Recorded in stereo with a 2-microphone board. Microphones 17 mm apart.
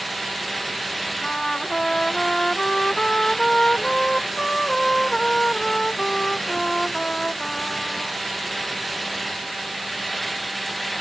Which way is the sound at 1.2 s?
35° left (ahead or behind).